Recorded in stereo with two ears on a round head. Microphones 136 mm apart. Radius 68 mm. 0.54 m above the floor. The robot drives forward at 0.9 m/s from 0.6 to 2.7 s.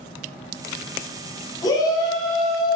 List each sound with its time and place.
1.6 s a shout: 25° left (ahead or behind), 5.5 m; by 2.8 s 30° left (ahead or behind), 5 m